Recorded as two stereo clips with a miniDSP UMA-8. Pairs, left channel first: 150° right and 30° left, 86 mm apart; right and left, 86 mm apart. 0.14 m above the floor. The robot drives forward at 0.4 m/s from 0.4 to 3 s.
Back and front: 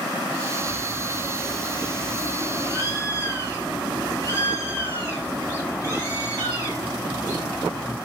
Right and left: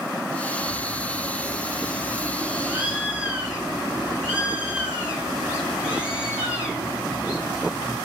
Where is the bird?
125° left, 1.3 m; by 8.0 s 165° left, 1.7 m.